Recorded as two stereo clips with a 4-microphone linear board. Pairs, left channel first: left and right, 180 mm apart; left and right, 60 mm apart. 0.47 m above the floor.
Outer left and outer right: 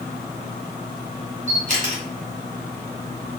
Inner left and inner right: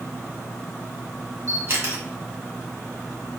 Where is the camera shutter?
45° right (ahead or behind), 1.4 m.